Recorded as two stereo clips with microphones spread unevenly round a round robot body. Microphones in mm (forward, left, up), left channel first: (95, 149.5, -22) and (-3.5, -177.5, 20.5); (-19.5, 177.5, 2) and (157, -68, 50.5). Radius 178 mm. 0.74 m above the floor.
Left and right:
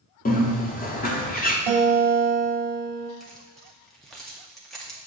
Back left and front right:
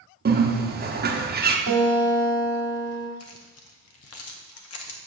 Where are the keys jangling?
160° left, 0.6 m.